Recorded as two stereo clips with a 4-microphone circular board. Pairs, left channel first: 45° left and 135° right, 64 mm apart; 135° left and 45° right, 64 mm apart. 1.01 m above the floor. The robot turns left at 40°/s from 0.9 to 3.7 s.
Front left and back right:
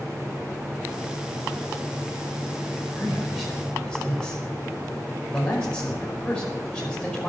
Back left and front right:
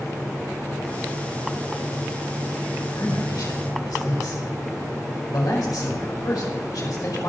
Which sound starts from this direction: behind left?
A man speaking, at 3.0 s.